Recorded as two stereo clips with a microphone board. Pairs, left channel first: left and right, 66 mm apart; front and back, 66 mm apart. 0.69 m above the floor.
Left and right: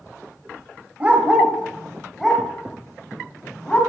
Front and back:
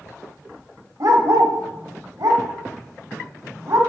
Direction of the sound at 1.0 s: 155° right.